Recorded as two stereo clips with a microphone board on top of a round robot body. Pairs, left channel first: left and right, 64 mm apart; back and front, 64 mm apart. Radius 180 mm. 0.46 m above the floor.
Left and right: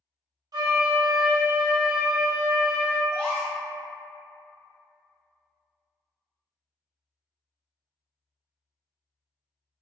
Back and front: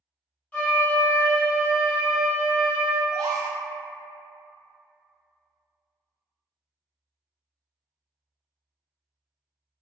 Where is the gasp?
15° left, 0.7 m.